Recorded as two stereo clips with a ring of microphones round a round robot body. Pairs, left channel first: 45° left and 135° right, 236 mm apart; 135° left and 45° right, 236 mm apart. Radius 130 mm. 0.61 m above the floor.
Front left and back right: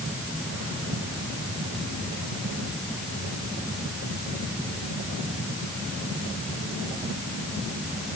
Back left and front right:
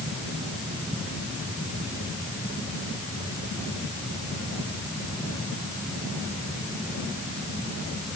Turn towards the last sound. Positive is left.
No sound to turn to.